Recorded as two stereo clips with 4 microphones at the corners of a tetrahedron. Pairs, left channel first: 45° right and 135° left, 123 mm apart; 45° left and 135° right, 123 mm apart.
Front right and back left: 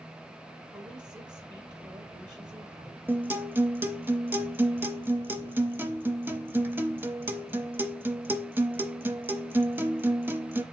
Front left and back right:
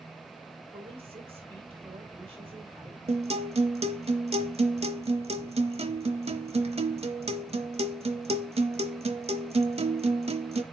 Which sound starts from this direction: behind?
A woman speaking, at 0.7 s.